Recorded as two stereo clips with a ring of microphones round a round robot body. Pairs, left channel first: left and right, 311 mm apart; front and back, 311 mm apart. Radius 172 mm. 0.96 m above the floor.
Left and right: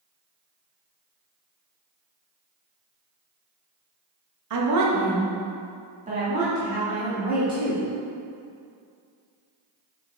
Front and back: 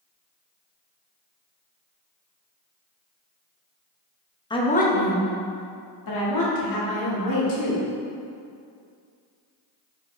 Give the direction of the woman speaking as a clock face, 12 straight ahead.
3 o'clock.